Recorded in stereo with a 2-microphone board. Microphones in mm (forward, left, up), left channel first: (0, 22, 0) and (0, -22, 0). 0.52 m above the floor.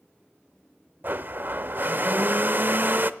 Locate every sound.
1.0 s a blender: 45° right (ahead or behind), 0.6 m